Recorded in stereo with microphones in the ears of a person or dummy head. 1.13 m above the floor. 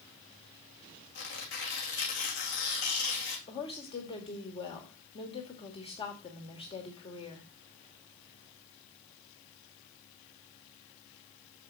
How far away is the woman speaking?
About 2.5 m.